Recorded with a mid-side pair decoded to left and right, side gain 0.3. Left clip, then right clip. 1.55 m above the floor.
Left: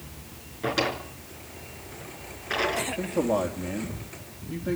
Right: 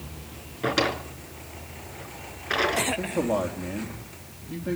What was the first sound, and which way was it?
A drawer, 45° right.